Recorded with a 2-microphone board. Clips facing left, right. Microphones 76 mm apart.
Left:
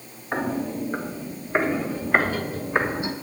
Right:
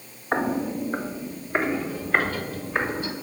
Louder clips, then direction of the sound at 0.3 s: Right 2 dB; 25° right (ahead or behind).